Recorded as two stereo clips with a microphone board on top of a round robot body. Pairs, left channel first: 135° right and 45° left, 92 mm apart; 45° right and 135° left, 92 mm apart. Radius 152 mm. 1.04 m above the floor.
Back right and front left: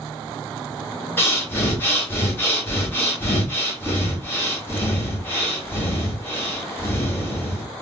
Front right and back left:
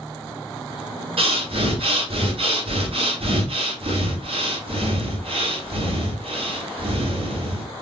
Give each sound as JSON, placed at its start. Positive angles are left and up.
{"t": 1.2, "sound": "breathing", "azimuth_deg": 155, "distance_m": 1.9}